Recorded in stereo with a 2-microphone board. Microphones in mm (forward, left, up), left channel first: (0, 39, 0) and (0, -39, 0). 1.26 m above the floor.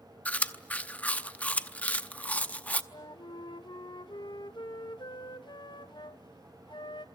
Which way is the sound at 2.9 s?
70° left (ahead or behind).